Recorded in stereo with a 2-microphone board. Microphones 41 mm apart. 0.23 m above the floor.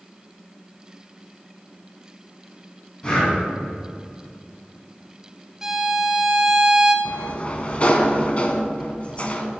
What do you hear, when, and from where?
3.0 s breathing: 30° left (ahead or behind), 2.5 m
5.6 s a violin: 10° right (ahead or behind), 0.8 m
7.0 s a sliding door: 35° left (ahead or behind), 0.7 m